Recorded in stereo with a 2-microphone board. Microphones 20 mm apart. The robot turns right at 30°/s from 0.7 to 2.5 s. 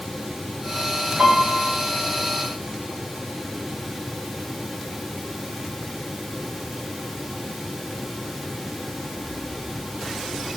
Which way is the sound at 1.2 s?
85° right.